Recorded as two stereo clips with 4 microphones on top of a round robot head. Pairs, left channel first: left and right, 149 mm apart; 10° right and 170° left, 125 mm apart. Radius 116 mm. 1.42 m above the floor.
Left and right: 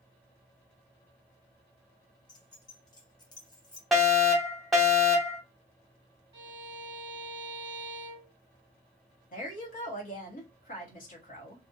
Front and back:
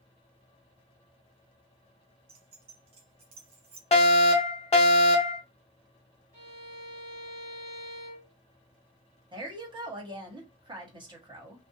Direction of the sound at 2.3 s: 145° left.